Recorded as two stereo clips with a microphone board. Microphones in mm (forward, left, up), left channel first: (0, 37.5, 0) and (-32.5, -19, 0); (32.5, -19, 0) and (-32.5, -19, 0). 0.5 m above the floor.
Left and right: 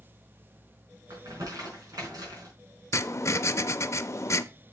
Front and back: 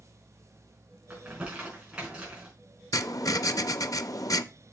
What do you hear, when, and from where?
1.1 s crumpling: 105° right, 4.5 m
2.9 s writing: 20° left, 0.6 m